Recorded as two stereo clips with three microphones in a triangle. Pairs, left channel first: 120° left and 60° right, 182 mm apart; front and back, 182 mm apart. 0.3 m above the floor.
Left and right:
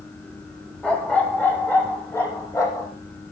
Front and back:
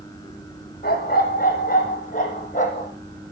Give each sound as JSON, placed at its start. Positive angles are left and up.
{"t": 0.8, "sound": "a dog barking", "azimuth_deg": 35, "distance_m": 5.0}